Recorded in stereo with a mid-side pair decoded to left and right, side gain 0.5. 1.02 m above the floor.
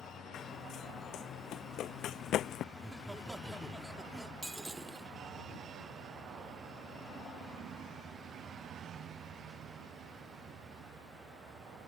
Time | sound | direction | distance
0.3 | running footsteps | 65° left | ?
2.7 | laughter | 5° right | ?
4.4 | breaking glass | 15° right | ?